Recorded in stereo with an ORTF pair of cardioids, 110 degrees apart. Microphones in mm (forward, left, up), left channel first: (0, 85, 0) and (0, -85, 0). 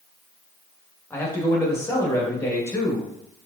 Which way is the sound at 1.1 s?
15° left.